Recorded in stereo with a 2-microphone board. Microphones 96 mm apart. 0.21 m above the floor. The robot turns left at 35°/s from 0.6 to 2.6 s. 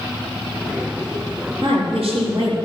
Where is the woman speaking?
85° right, 4.5 m; by 2.6 s 120° right, 4.5 m.